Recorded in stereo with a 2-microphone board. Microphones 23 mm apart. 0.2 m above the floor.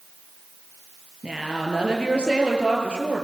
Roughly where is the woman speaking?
Right.